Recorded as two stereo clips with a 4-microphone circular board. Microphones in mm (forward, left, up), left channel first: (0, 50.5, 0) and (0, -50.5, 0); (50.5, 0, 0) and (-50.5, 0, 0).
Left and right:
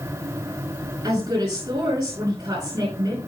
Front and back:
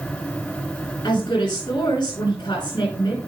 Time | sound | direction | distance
1.0 | a woman speaking | 45° right | 9.5 m